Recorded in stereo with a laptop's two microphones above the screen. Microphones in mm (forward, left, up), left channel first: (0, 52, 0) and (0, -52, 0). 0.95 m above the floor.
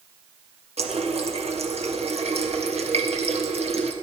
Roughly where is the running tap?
Right.